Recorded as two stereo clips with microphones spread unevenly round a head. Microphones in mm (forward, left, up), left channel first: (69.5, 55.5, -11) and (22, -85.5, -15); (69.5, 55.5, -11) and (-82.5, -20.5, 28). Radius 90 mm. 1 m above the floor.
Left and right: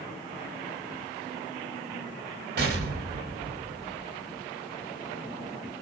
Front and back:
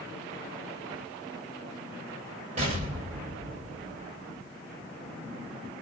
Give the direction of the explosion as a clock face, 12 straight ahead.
3 o'clock.